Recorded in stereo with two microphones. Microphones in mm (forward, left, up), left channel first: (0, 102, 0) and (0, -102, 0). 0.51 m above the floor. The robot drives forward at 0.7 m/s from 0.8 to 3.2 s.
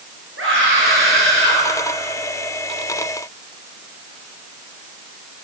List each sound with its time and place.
0.4 s a scream: 80° right, 9.5 m